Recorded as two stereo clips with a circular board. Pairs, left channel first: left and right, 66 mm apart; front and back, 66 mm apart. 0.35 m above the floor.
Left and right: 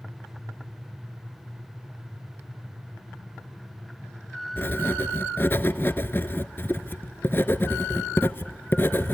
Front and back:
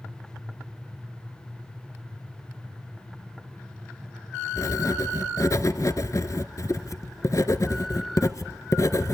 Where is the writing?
35° left, 0.9 m.